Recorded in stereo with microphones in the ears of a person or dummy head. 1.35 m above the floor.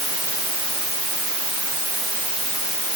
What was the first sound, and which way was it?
Only background noise.